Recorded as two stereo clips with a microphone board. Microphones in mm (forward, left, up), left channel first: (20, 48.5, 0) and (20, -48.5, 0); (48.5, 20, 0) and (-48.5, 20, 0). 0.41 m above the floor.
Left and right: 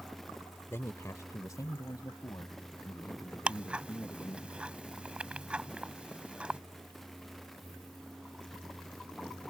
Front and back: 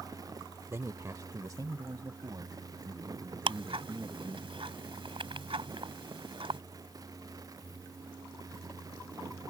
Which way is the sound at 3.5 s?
170° right.